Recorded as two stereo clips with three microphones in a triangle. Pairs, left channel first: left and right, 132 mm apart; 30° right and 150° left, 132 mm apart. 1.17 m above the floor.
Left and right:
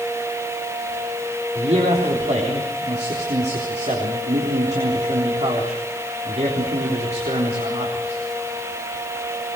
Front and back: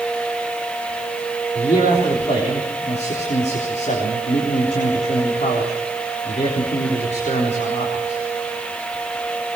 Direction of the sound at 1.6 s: 60° right.